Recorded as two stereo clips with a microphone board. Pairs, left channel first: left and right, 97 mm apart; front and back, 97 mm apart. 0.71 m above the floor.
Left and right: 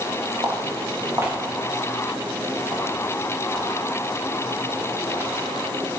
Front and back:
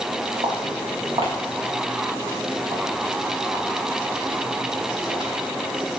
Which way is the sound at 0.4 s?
155° right.